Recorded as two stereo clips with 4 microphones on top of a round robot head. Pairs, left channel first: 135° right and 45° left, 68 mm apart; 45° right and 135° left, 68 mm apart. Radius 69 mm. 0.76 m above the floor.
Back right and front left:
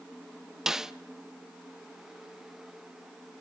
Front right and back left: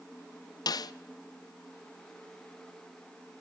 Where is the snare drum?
40° right, 0.6 m.